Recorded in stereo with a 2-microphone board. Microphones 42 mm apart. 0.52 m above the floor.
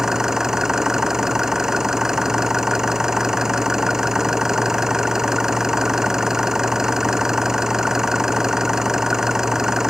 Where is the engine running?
10° right (ahead or behind).